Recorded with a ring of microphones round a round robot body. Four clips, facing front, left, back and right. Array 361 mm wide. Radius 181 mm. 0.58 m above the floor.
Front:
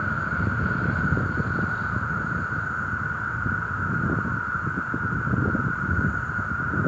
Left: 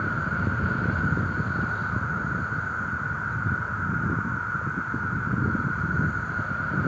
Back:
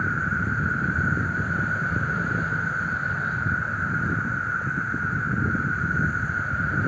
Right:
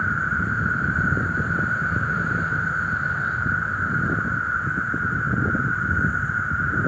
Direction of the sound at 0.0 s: 140° right.